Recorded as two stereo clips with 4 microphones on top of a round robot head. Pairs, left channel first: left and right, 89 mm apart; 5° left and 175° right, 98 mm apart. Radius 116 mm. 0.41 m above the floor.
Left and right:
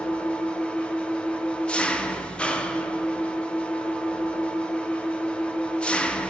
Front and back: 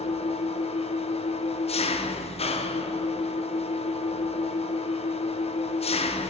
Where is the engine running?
10° left, 0.9 m.